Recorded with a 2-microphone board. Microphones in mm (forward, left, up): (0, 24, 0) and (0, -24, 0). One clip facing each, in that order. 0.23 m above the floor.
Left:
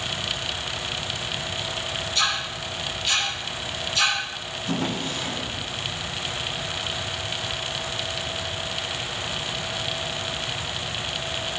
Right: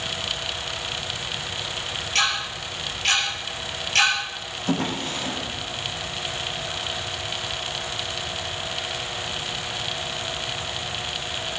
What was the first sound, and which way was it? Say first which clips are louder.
Ticking: right 3 dB; 75° right (ahead or behind).